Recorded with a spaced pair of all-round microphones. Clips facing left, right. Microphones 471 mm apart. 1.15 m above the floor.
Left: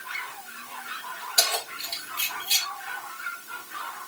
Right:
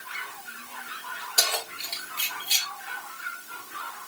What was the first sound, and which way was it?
Keys jangling, 40° left (ahead or behind).